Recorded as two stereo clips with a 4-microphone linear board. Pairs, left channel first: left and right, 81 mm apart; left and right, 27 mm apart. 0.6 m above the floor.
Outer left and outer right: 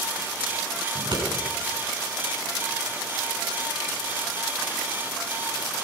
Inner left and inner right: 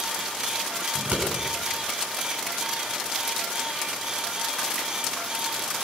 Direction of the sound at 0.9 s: 75° right (ahead or behind).